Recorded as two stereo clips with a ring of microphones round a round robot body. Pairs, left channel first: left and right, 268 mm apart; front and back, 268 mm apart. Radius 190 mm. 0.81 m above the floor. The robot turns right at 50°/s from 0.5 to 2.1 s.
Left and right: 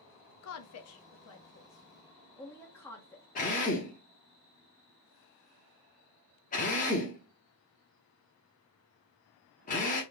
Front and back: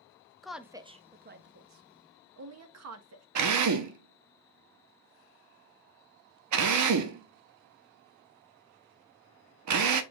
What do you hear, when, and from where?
0.4 s a woman speaking: 90° left, 0.8 m; by 3.2 s 170° left, 0.8 m
3.4 s a drill: 160° left, 0.7 m